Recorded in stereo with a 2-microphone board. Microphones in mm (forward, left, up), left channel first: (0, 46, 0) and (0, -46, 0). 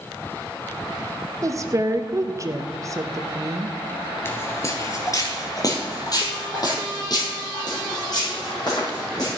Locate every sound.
1.4 s a woman speaking: 35° right (ahead or behind), 0.6 m
4.2 s footsteps: 25° left (ahead or behind), 1.1 m; by 9.3 s 45° left (ahead or behind), 4 m